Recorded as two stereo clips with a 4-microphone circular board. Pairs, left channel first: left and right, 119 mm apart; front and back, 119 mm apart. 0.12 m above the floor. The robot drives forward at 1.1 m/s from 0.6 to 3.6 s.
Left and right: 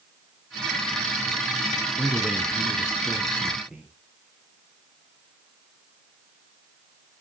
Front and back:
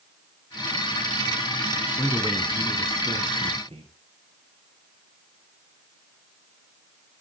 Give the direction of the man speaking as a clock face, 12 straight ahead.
1 o'clock.